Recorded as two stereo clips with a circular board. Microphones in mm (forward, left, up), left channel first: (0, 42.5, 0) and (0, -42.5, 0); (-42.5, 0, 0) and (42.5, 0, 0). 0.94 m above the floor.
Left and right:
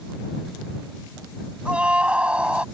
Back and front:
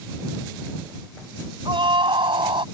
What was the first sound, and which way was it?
A scream, 10° right.